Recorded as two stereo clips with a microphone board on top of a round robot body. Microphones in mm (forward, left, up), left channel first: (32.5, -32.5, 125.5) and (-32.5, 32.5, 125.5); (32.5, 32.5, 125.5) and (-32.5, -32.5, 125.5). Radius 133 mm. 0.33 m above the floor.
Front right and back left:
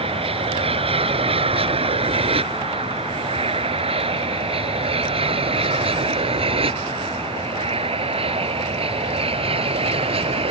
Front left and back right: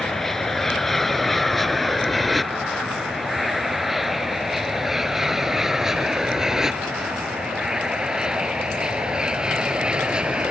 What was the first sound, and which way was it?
An aircraft, 130° left.